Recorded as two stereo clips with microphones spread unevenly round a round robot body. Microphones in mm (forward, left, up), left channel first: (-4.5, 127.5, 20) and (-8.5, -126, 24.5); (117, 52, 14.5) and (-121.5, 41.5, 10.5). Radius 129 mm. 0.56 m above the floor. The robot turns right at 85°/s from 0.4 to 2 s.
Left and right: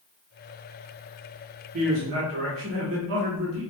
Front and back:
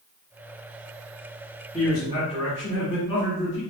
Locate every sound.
1.7 s a man speaking: 90° right, 1.5 m; by 3.6 s 70° right, 1.5 m